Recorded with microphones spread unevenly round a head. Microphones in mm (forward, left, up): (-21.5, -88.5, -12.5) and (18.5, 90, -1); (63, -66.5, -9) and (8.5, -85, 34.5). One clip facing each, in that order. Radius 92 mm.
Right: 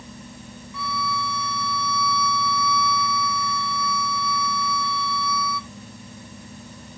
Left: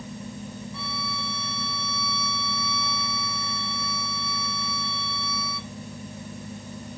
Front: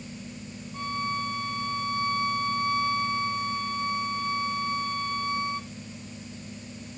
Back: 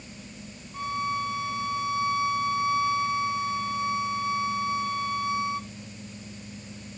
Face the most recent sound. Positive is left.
turn(degrees=135)